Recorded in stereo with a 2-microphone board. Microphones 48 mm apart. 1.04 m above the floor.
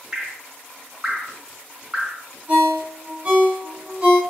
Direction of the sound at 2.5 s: 25° right (ahead or behind).